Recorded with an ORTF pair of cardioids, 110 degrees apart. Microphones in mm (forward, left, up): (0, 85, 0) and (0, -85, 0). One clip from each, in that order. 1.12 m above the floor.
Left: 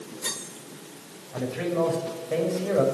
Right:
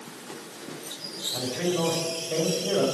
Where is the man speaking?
25° left, 5 m.